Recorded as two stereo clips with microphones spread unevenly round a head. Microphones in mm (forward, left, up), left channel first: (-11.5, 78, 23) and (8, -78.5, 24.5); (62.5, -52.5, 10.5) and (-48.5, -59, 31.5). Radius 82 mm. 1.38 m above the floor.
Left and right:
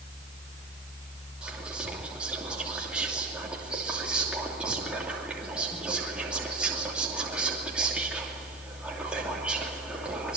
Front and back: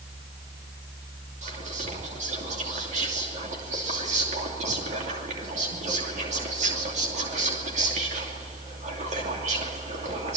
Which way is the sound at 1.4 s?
165° right.